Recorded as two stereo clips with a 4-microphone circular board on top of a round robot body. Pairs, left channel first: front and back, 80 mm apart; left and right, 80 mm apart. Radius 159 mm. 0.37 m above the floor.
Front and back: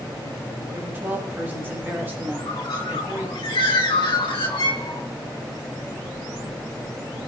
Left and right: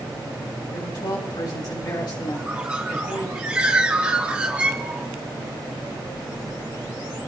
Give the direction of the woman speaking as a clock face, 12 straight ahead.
8 o'clock.